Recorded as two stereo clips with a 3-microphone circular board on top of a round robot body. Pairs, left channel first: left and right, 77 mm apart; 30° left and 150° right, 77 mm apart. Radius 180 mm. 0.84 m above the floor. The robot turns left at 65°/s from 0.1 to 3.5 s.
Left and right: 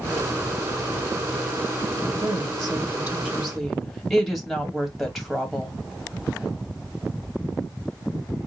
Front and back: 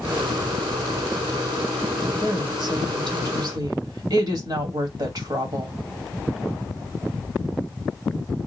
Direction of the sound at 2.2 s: 95° right.